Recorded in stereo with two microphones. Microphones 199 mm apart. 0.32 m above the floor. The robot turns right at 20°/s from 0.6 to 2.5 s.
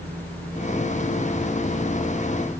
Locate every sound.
Only background noise.